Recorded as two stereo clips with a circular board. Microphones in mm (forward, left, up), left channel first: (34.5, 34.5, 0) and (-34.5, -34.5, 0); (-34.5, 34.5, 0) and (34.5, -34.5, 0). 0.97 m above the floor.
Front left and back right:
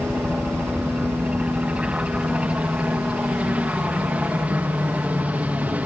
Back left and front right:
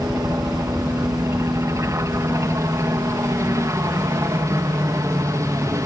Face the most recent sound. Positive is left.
turn(degrees=-70)